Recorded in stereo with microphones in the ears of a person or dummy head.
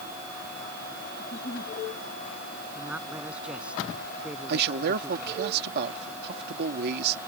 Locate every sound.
1.2 s a giggle: 35° left (ahead or behind)
2.8 s a man speaking: 5° right (ahead or behind)
4.5 s a man speaking: 60° right (ahead or behind)